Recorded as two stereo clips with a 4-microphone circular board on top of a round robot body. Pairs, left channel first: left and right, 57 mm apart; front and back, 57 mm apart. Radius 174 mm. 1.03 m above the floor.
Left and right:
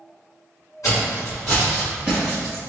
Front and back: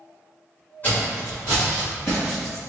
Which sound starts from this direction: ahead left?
Footsteps, at 0.8 s.